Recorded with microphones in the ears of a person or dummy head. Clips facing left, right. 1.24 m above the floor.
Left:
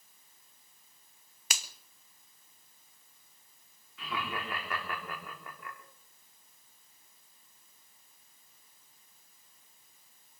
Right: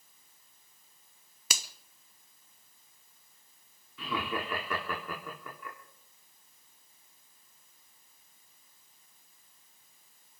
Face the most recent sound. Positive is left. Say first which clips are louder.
# right 4 dB
turn(degrees=-80)